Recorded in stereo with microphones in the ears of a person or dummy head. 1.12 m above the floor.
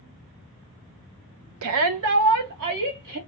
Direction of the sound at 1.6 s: 75° right (ahead or behind).